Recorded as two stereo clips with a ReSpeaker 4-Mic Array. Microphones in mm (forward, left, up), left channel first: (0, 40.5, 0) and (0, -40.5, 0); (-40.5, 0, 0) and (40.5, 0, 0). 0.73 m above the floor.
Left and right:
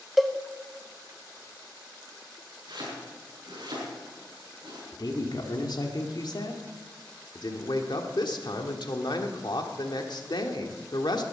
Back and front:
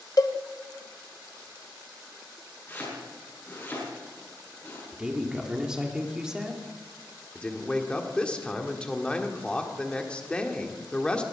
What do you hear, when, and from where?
0.2 s a cowbell: straight behind, 0.9 m
2.7 s chopping: 115° right, 7 m
4.9 s a woman speaking: 80° left, 2 m
7.3 s a man speaking: 105° left, 1.6 m